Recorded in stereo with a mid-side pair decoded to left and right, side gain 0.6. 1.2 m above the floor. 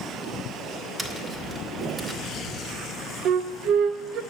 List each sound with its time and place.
1.0 s tapping: 20° right, 1.5 m
3.2 s a flute: 60° right, 0.7 m